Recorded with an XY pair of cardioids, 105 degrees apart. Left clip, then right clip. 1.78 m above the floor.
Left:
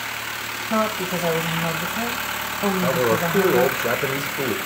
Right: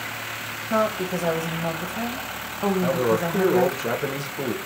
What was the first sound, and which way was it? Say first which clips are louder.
A woman speaking: even; 5° left.